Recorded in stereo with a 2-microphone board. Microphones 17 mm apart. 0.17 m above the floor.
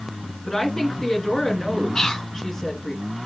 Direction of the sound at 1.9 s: 45° left (ahead or behind).